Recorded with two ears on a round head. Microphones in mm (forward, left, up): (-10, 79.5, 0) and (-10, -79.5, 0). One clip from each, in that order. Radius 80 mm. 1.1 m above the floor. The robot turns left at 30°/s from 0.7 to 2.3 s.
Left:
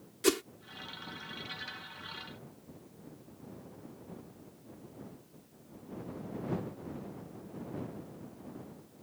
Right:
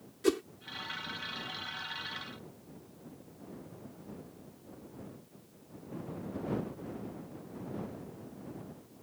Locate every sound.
0.2 s a whoosh: 45° left (ahead or behind)